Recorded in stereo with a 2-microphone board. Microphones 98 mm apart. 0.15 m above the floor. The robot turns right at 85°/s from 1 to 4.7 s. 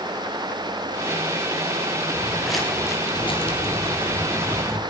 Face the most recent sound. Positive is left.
turn(degrees=5)  # may be behind; listen again after turning